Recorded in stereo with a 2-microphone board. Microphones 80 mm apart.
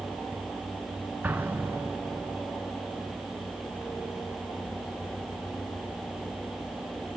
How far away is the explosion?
About 0.9 m.